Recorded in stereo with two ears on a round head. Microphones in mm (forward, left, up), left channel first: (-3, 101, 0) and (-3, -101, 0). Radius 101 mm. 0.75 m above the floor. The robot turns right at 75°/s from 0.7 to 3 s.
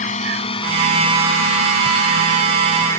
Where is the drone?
35° left (ahead or behind); by 3.0 s 10° left (ahead or behind).